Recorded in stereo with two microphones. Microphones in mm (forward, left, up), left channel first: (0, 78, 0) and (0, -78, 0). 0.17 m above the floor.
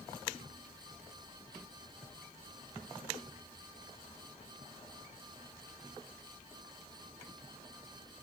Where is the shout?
I don't hear a shout.